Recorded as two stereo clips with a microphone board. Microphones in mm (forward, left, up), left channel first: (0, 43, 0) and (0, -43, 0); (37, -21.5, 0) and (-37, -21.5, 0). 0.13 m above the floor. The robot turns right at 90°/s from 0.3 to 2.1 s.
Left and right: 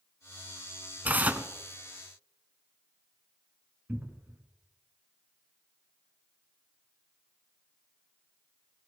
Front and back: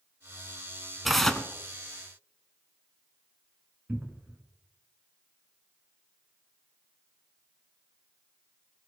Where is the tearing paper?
95° right, 0.9 m; by 1.5 s 55° right, 0.9 m.